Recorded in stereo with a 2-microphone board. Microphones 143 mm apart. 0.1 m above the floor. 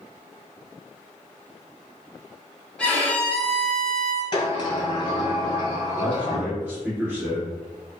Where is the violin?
5° left (ahead or behind), 1.1 m.